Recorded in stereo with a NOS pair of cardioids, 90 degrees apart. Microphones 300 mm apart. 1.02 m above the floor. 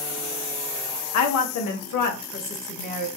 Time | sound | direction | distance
1.1 | a woman speaking | 65° left | 0.7 m